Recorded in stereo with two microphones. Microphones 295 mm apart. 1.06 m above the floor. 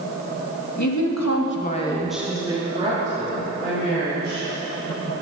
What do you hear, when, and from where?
0.8 s a woman speaking: 75° left (ahead or behind), 1.6 m; by 4.5 s 35° right (ahead or behind), 4.5 m